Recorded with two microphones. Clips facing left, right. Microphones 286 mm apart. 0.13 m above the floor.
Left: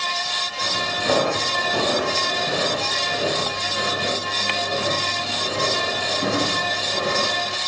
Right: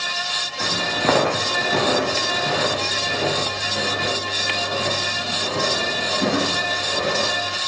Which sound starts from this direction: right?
Footsteps, at 0.6 s.